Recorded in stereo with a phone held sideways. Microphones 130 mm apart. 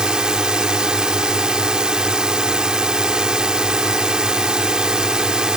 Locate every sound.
0.0 s a drone: 5° right (ahead or behind)